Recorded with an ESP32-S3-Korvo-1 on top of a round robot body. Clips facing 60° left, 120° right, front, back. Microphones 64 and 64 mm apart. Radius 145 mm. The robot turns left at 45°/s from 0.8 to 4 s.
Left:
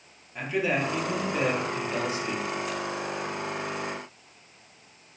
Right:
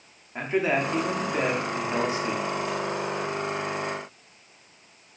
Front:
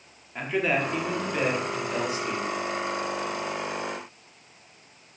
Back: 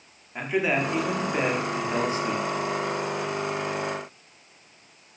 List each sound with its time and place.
0.3 s a man speaking: 105° right, 1.0 m; by 2.5 s straight behind, 1.0 m